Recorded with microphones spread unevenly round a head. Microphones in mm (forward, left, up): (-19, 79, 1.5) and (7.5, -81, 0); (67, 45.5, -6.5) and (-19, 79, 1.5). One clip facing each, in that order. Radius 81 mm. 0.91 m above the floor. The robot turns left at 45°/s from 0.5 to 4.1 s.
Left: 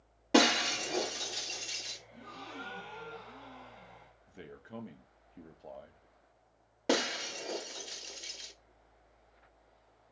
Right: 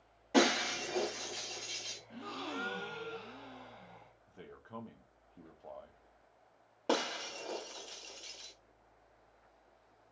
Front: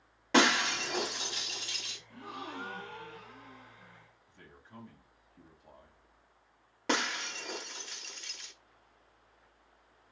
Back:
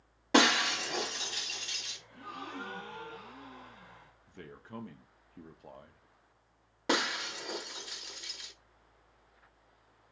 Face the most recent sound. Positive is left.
turn(degrees=115)